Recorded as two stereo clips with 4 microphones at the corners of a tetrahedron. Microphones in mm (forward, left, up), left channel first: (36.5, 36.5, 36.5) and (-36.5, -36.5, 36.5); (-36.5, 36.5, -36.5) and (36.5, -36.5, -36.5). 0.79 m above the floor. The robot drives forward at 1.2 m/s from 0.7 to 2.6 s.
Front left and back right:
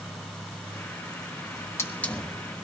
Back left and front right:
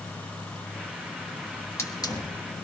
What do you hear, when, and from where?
1.5 s a hiss: 70° left, 1.2 m; by 2.3 s 130° left, 1.4 m